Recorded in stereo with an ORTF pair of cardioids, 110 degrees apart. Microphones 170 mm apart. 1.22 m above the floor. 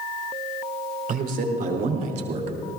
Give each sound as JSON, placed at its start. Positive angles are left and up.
{"t": 1.1, "sound": "a man speaking", "azimuth_deg": -60, "distance_m": 4.5}